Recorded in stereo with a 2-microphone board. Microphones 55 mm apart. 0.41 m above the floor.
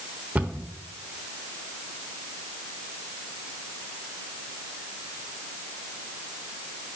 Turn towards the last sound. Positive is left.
turn(degrees=-30)  # may be behind; listen again after turning